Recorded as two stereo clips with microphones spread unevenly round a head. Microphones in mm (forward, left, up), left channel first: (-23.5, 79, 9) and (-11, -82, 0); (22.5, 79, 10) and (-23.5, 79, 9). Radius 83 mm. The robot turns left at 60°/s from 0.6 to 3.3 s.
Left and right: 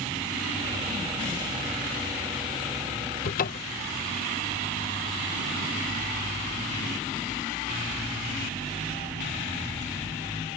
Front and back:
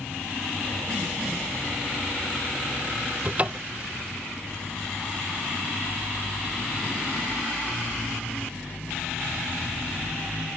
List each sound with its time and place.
3.2 s a cupboard door: 130° left; by 3.8 s 125° left